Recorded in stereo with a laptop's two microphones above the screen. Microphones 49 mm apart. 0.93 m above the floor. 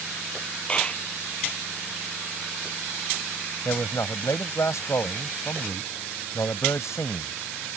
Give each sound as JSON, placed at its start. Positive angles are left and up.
{"t": 0.7, "sound": "a clap", "side_deg": 25}
{"t": 3.6, "sound": "a man speaking", "side_deg": 85}